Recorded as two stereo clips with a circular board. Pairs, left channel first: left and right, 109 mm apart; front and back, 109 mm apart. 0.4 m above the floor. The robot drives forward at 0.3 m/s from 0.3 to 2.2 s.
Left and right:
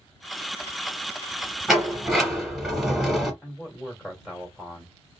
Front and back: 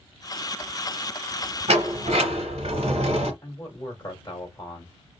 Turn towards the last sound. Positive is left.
turn(degrees=-5)